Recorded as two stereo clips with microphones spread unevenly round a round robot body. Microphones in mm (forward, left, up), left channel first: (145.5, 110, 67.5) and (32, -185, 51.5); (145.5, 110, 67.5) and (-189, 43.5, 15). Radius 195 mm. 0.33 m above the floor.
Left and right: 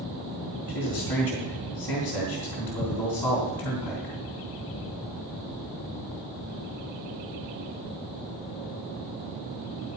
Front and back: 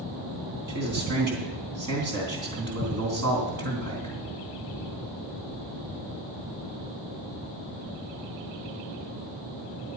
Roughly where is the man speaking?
Behind left.